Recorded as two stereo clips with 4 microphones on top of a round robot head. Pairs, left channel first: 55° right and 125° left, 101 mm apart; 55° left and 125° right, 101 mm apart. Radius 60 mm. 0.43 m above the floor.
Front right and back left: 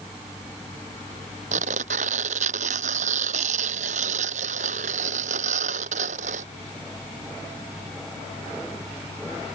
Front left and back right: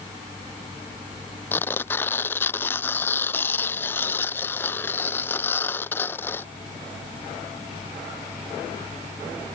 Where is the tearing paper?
125° left.